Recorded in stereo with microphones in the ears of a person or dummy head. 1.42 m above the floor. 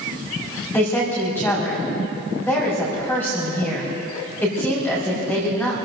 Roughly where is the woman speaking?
Centre.